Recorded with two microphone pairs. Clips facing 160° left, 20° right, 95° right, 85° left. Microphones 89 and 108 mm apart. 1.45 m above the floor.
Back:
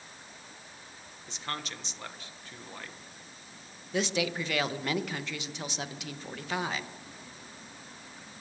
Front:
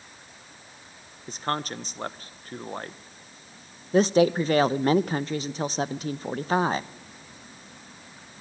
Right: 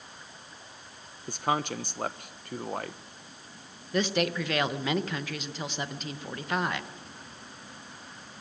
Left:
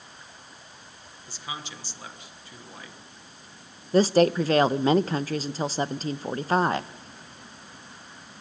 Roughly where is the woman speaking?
Ahead left.